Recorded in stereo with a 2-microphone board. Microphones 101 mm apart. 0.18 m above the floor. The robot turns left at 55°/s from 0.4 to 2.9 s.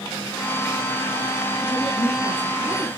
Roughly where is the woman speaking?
Behind left.